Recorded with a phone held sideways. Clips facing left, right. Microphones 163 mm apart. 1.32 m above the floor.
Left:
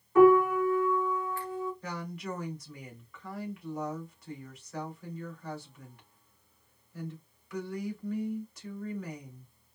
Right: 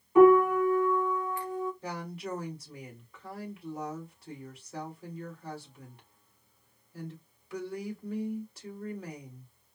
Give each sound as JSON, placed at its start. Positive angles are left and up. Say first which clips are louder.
{"t": 0.1, "sound": "a piano", "louder": "right 1 dB", "side_deg": -15, "distance_m": 1.8}
{"t": 1.8, "sound": "a woman speaking", "louder": "even", "side_deg": -30, "distance_m": 2.5}